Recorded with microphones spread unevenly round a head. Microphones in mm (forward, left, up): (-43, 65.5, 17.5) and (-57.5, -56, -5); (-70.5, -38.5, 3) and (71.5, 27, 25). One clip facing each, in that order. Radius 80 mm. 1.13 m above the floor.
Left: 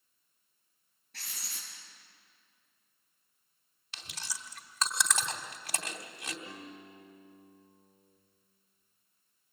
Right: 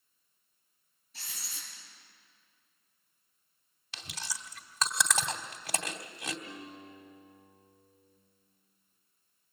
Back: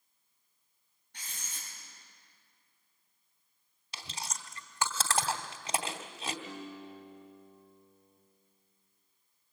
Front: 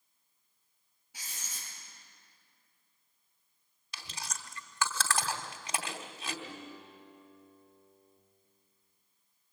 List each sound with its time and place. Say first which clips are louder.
1.1 s writing: even, even; 110° left, 8 m
3.9 s chewing: right 3 dB, back 2 dB; 90° right, 2.5 m
6.5 s a guitar: right 1 dB, back 3 dB; 135° left, 5 m